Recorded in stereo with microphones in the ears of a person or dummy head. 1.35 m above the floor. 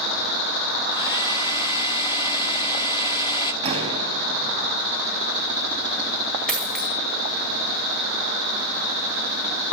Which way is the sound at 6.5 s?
Centre (ahead or behind).